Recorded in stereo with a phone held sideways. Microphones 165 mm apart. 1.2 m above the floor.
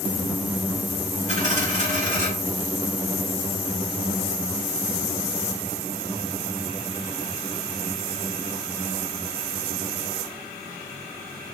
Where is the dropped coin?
50° right (ahead or behind), 2.5 m.